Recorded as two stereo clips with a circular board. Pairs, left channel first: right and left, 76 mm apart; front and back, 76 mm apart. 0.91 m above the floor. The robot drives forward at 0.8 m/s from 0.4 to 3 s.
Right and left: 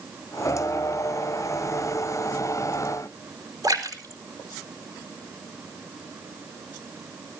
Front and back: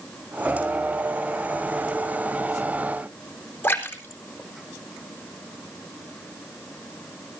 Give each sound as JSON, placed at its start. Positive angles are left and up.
{"t": 3.6, "sound": "a splash", "azimuth_deg": 65, "distance_m": 4.0}